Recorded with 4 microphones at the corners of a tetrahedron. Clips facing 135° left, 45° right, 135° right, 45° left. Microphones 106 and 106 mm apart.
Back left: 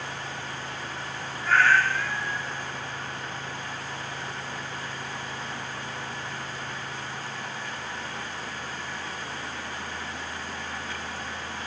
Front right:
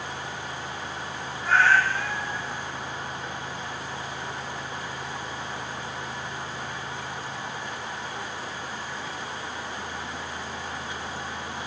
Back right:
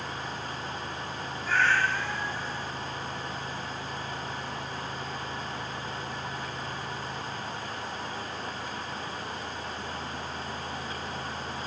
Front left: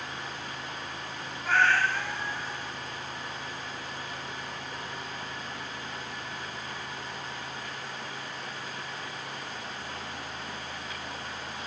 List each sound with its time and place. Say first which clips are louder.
1.4 s a cat meowing: front right 1 dB, front left 1 dB; 15° left, 1.5 m